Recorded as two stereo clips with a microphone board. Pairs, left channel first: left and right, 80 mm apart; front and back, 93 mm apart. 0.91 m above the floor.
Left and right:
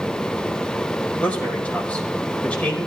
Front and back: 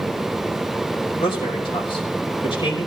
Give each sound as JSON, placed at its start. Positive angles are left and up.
{"t": 1.2, "sound": "a man speaking", "azimuth_deg": 15, "distance_m": 5.5}